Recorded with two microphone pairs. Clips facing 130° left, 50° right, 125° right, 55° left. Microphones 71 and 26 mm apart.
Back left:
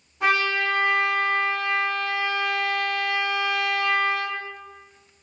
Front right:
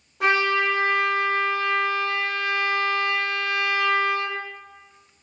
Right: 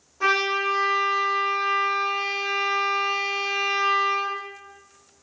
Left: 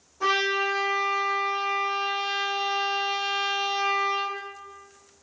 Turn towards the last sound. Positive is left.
turn(degrees=-60)